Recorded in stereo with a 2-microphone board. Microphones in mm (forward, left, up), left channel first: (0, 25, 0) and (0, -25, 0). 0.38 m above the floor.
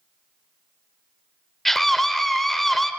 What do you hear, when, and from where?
1.6 s a scream: 5° left (ahead or behind), 0.9 m